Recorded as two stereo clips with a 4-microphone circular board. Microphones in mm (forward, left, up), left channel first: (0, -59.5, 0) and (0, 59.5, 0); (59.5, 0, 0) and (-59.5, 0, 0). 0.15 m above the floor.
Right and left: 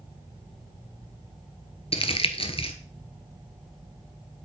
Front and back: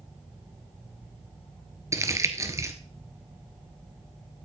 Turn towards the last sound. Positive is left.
turn(degrees=-120)